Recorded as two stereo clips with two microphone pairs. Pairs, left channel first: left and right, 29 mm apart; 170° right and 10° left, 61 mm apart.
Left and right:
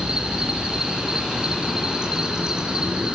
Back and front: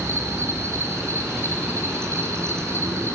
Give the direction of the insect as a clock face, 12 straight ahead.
1 o'clock.